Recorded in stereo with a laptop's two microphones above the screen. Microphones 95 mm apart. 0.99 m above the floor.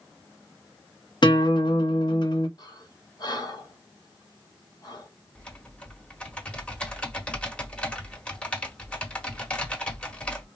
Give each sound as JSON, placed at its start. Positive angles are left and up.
{"t": 1.2, "sound": "a guitar", "side_deg": 60, "distance_m": 0.7}
{"t": 2.6, "sound": "breathing", "side_deg": 50, "distance_m": 1.7}
{"t": 5.3, "sound": "typing on a keyboard", "side_deg": 15, "distance_m": 1.2}